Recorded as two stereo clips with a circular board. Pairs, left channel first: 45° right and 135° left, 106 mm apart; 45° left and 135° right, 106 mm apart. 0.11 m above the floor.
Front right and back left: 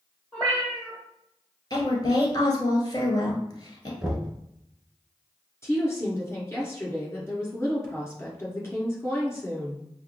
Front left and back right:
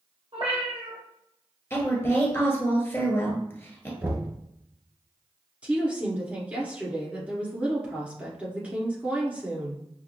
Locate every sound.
0.3 s a cat meowing: 125° right, 1.7 m
1.7 s a woman speaking: 15° right, 1.5 m
4.0 s knocking: 150° right, 1.5 m
5.6 s a woman speaking: 70° right, 1.5 m